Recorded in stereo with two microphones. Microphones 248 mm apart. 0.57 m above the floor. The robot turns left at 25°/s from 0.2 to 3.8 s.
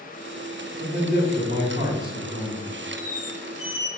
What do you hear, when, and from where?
0.8 s a man speaking: 50° right, 1.4 m; by 2.7 s 100° right, 1.4 m
3.0 s a squeak: 70° left (ahead or behind), 0.8 m; by 3.9 s 55° left (ahead or behind), 0.8 m